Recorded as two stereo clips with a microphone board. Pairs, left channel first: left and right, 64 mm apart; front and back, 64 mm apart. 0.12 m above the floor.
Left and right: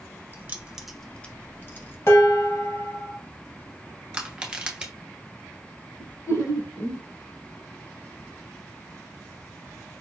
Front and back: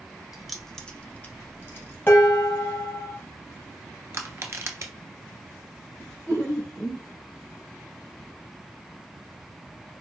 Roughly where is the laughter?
Ahead left.